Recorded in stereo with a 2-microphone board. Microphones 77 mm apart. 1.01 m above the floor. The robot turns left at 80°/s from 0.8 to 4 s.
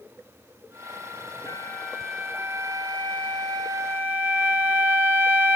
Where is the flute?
50° left, 4 m; by 5.6 s 150° right, 4 m.